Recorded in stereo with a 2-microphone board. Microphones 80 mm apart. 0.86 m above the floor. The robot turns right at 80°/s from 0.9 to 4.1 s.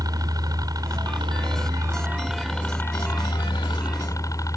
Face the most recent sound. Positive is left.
turn(degrees=130)